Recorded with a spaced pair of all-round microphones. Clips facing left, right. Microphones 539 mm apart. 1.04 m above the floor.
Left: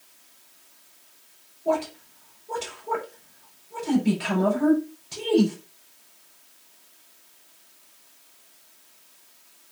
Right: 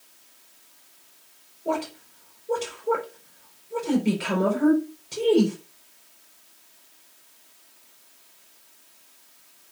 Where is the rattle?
I don't hear a rattle.